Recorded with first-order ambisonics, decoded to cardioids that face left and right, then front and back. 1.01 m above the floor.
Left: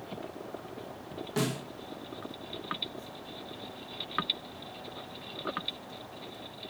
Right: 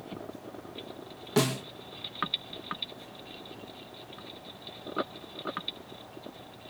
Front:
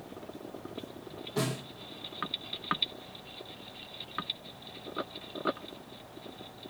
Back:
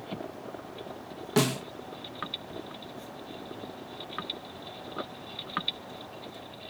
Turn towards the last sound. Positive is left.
turn(degrees=-155)